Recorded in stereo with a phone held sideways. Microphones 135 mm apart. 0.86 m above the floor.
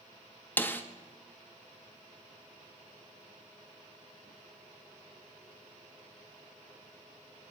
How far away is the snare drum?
About 0.7 m.